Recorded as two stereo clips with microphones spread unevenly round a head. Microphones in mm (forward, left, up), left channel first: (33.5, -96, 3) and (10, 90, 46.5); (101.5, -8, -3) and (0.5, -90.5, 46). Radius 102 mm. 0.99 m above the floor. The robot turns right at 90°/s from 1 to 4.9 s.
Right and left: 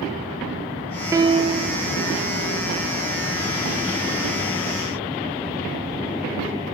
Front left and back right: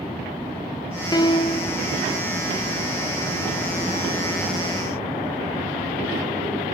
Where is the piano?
15° left, 0.6 m; by 1.8 s 75° left, 0.6 m.